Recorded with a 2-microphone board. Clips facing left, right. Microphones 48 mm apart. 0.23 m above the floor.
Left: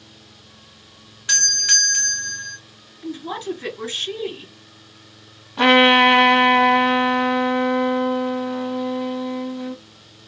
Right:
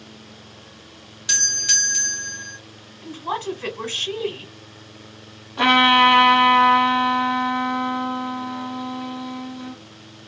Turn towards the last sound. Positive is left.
turn(degrees=5)  # may be behind; listen again after turning